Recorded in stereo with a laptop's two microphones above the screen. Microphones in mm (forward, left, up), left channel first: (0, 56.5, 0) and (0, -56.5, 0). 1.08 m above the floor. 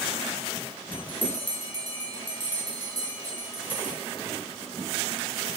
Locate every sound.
0.9 s a bell: 55° left (ahead or behind), 1.4 m